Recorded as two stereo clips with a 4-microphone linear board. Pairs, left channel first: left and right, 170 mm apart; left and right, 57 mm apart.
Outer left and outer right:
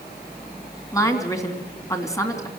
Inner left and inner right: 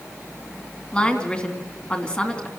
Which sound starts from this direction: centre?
A woman speaking, at 0.9 s.